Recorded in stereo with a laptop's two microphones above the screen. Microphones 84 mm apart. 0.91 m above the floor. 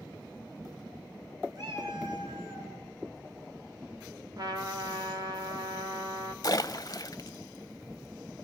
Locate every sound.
1.6 s a cat meowing: 60° right (ahead or behind), 4.5 m
4.4 s a trumpet: 60° right (ahead or behind), 2.5 m
6.4 s a splash: 50° left (ahead or behind), 1.0 m